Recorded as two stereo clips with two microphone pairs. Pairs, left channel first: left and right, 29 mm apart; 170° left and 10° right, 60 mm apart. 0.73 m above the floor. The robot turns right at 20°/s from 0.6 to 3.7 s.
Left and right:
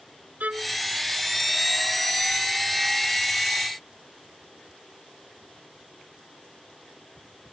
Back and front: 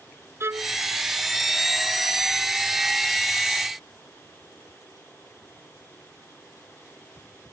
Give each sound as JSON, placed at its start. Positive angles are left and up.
{"t": 0.4, "sound": "a violin", "azimuth_deg": -60}